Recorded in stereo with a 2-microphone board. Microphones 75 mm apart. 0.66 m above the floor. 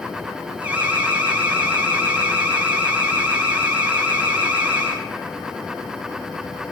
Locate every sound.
0.6 s an alarm: 20° right (ahead or behind), 8.5 m